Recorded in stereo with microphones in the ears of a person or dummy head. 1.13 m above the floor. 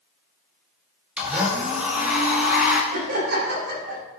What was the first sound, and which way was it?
A blender, 10° right (ahead or behind).